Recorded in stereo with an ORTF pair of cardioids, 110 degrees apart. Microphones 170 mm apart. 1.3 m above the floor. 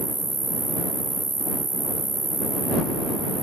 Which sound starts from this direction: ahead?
An insect, at 0.0 s.